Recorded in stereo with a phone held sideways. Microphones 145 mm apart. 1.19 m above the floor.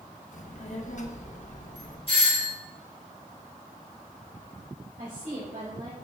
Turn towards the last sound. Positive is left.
turn(degrees=-65)  # may be behind; listen again after turning